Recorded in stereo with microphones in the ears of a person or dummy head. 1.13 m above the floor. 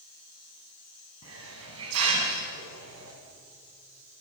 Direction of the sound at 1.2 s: 90° right.